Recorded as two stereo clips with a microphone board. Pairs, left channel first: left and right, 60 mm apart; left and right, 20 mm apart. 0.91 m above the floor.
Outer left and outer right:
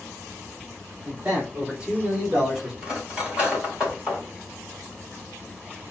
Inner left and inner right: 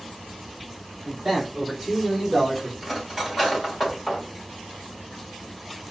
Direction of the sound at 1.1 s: 20° right (ahead or behind).